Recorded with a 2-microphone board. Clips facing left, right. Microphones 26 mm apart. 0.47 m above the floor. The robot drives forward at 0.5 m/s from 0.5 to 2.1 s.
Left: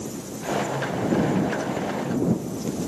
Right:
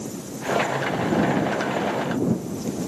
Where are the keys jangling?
No keys jangling in this recording.